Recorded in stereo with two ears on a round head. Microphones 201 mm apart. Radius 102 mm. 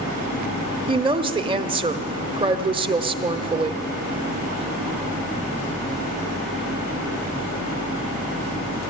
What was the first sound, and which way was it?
A woman speaking, 25° right (ahead or behind).